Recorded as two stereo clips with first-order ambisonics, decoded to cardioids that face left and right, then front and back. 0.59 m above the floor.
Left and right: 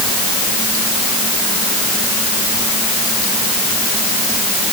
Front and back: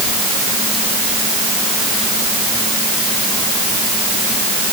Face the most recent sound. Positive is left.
No sound to turn to.